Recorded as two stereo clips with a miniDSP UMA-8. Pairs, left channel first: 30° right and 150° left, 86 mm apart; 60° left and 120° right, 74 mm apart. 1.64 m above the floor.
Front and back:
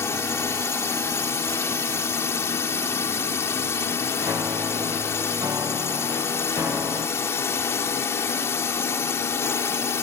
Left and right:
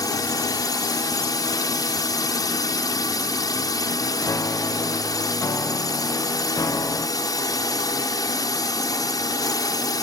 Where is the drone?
30° left.